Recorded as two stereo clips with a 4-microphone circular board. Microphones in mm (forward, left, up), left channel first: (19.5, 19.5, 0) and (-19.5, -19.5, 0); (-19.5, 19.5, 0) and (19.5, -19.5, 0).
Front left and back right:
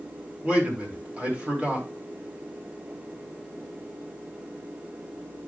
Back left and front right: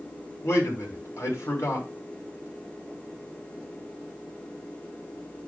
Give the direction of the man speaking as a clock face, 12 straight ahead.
7 o'clock.